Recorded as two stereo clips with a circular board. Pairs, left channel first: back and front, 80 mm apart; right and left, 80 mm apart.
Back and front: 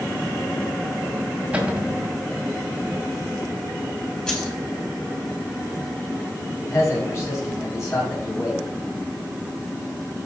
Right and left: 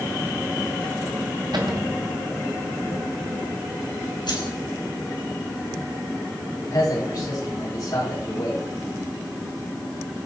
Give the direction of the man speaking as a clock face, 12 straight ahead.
4 o'clock.